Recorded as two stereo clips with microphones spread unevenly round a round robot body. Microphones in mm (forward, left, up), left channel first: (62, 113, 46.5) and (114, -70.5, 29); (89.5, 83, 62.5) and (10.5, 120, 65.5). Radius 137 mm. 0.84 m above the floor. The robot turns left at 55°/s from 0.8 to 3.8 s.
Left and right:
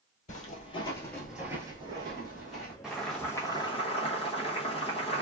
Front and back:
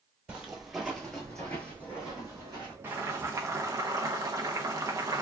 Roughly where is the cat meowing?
I don't hear a cat meowing.